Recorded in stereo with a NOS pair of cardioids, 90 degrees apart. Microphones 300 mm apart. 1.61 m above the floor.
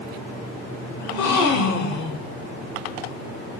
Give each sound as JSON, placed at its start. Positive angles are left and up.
{"t": 1.0, "sound": "a gasp", "azimuth_deg": 60, "distance_m": 1.0}